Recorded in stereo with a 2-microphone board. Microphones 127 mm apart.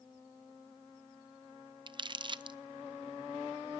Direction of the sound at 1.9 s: 40° right (ahead or behind).